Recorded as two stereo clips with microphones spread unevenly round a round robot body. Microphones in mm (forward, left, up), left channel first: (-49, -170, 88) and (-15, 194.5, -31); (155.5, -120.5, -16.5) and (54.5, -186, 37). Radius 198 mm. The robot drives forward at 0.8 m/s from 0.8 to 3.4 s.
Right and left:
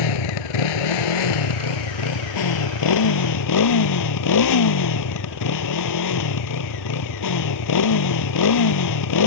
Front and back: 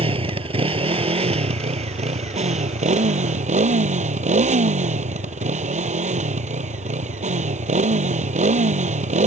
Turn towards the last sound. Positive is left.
turn(degrees=-135)